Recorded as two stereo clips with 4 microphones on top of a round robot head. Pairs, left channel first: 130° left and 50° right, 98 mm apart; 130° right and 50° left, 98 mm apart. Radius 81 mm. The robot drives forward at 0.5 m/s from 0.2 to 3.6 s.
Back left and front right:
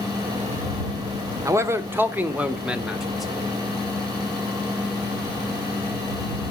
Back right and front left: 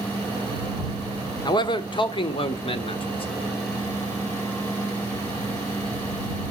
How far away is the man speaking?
About 1.2 m.